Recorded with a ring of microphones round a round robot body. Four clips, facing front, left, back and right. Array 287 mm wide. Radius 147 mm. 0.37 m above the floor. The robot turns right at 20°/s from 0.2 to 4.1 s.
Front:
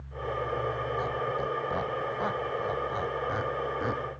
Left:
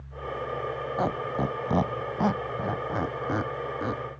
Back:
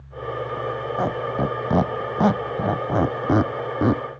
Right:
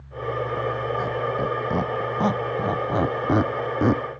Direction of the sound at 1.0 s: 160° left.